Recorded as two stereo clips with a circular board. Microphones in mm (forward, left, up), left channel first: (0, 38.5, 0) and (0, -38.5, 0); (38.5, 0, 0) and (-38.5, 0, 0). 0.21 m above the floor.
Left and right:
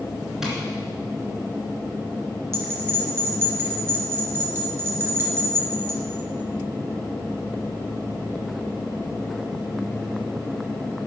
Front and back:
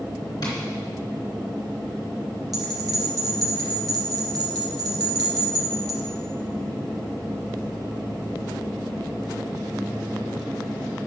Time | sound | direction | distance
0.4 | tapping | 5° right | 3 m
2.5 | a bell | 145° right | 3 m